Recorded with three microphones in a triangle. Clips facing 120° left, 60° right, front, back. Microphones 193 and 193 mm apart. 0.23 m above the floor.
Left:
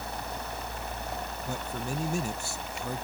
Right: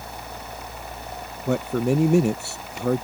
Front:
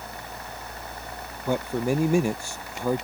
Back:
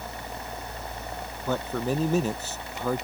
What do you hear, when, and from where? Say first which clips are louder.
1.5 s a man speaking: right 16 dB, front 3 dB; 75° right